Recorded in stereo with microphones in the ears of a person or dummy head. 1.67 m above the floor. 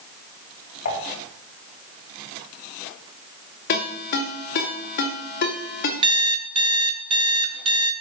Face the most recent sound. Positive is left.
turn(degrees=-30)  # may be behind; listen again after turning